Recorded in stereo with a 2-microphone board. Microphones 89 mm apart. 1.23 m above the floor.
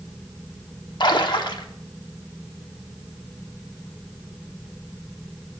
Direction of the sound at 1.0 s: 60° left (ahead or behind).